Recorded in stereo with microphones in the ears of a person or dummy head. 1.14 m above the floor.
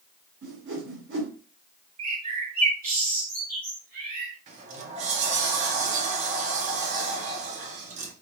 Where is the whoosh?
80° right, 2.0 m.